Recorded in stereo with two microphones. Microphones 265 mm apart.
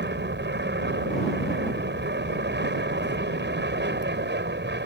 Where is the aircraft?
40° right (ahead or behind).